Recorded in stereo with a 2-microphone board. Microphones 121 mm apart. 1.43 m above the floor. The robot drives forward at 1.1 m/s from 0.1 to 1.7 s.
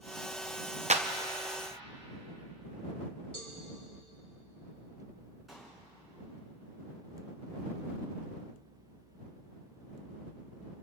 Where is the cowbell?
50° left (ahead or behind), 3 m.